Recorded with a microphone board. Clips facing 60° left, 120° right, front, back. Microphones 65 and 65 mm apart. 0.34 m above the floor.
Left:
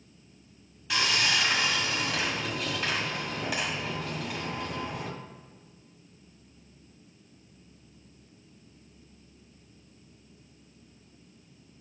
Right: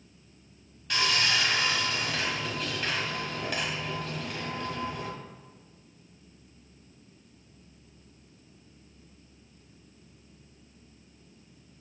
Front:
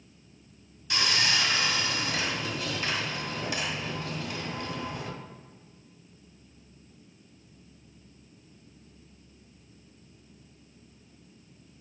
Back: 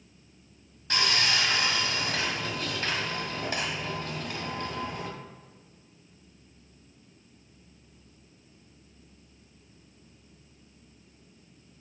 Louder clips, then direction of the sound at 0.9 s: Even, back 1 dB; 145° left.